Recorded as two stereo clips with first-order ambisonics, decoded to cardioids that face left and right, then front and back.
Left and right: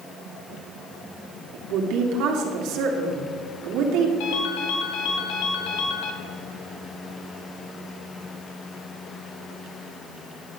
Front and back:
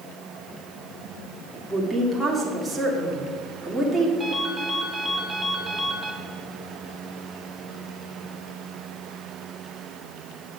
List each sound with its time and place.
1.5 s a woman speaking: 95° right, 1.9 m
4.2 s a ringtone: 95° left, 1.6 m